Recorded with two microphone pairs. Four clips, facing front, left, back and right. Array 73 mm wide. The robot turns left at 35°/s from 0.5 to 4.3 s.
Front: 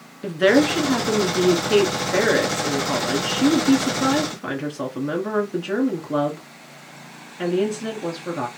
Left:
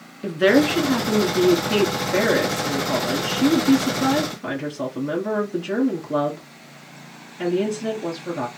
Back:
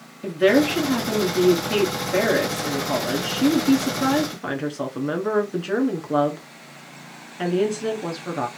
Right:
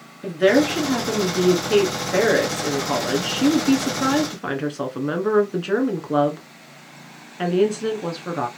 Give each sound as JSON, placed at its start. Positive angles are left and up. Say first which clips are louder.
{"t": 0.2, "sound": "a woman speaking", "louder": "even, front 1 dB", "azimuth_deg": 30, "distance_m": 1.2}